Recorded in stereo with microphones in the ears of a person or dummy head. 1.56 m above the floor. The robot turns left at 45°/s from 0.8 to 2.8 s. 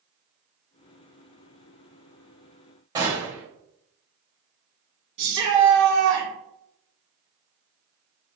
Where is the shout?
60° right (ahead or behind), 2 m.